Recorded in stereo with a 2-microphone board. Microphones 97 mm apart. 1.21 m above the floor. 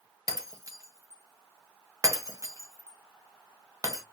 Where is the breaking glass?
35° right (ahead or behind), 0.6 m.